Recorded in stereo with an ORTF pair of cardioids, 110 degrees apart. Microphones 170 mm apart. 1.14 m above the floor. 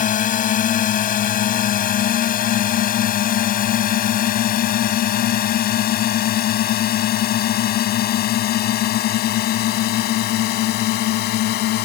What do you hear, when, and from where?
0.0 s a drone: 50° left; by 11.9 s 70° left